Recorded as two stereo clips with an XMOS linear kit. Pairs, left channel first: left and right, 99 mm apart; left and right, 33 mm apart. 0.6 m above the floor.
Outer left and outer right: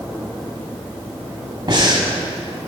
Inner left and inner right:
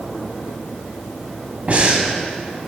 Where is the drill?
No drill in this recording.